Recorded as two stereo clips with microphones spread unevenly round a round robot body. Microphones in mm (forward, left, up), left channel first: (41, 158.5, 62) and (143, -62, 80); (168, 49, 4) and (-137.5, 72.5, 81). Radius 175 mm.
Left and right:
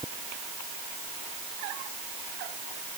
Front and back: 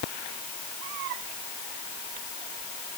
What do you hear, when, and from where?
Only background noise.